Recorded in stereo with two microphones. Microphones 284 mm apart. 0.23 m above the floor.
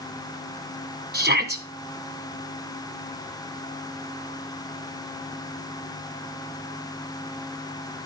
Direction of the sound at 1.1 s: 35° right (ahead or behind).